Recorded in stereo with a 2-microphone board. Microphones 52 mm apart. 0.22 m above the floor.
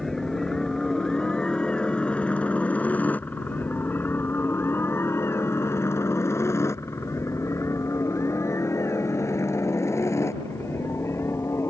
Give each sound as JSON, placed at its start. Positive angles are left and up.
{"t": 0.0, "sound": "a helicopter", "side_deg": 10}